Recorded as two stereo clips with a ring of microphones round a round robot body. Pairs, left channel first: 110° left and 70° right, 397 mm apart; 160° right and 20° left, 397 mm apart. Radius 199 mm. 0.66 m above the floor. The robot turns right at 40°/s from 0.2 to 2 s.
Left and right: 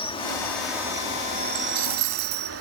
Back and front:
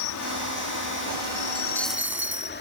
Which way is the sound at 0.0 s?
175° right.